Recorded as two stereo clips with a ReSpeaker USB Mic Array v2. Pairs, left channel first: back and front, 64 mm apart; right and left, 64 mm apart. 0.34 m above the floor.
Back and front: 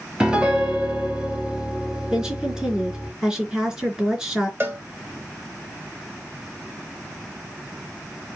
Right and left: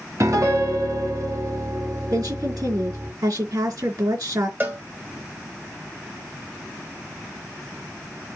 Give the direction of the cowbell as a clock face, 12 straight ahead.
11 o'clock.